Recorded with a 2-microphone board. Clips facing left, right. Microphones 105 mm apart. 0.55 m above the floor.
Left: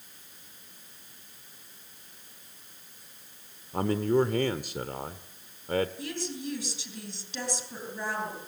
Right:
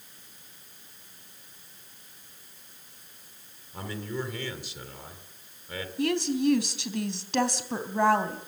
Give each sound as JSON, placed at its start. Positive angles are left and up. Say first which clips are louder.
{"t": 3.7, "sound": "a man speaking", "louder": "left 10 dB", "side_deg": 50, "distance_m": 1.7}
{"t": 6.0, "sound": "a woman speaking", "louder": "right 10 dB", "side_deg": -70, "distance_m": 3.5}